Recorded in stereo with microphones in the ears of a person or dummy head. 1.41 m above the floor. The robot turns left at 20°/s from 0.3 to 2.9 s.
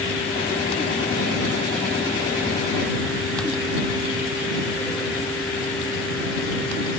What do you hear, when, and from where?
Only background noise.